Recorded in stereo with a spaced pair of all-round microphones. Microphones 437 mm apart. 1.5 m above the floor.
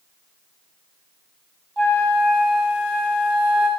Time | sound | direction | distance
1.8 | a flute | 70° right (ahead or behind) | 8 m